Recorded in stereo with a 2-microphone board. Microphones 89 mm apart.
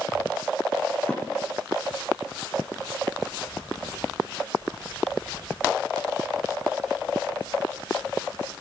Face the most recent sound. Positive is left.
turn(degrees=10)  # may be behind; listen again after turning